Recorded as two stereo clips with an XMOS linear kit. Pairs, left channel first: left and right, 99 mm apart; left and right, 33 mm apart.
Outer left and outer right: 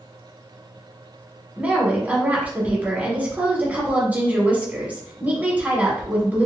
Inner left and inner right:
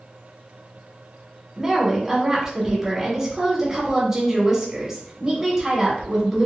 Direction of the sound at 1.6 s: 20° right (ahead or behind).